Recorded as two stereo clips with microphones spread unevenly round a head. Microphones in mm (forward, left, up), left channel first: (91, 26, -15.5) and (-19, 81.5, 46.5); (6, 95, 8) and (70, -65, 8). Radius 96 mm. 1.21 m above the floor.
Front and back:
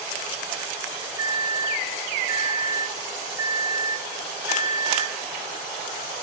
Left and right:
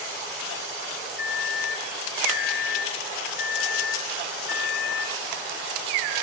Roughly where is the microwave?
Left.